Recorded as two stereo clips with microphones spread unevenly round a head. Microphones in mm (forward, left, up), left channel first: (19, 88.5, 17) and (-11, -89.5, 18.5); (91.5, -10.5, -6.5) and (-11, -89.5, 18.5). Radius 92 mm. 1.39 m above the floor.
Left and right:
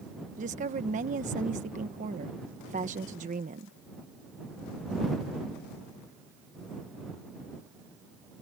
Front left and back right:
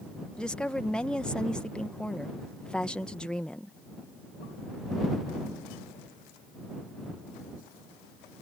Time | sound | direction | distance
0.4 | a woman speaking | 45° right | ?